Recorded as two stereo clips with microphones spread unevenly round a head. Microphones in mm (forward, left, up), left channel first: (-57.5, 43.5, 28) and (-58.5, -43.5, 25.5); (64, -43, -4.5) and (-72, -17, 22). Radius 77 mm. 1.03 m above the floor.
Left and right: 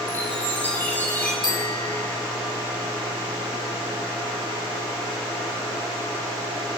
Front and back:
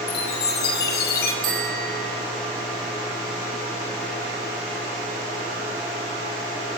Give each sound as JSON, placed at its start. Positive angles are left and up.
{"t": 0.1, "sound": "a chime", "azimuth_deg": 15, "distance_m": 5.0}
{"t": 1.4, "sound": "a bicycle bell", "azimuth_deg": 125, "distance_m": 8.0}